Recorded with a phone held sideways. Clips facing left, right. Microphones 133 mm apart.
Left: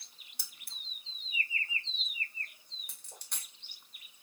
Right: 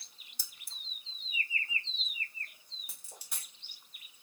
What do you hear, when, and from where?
0.4 s keys jangling: 60° left (ahead or behind), 0.5 m
2.9 s a dropped coin: 5° right (ahead or behind), 1.0 m